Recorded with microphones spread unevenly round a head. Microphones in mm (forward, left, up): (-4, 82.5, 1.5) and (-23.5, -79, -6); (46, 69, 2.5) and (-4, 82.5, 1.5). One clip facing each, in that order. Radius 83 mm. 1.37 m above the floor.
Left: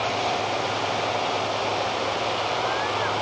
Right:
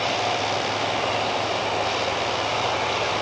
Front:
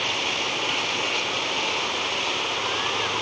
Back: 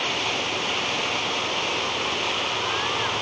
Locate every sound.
Only background noise.